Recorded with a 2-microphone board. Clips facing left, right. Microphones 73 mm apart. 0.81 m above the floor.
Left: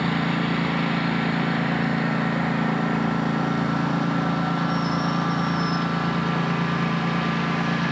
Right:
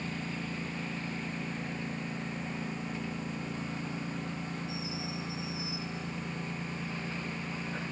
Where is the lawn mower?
75° left (ahead or behind); by 7.9 s 85° left.